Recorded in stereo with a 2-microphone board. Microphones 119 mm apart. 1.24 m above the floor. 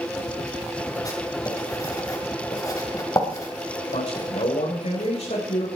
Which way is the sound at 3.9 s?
90° left.